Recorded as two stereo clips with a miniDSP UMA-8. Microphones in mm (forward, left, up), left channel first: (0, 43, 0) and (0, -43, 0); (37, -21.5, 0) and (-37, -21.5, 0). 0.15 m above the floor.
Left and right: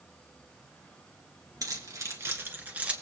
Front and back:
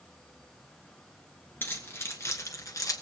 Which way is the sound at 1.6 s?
55° right.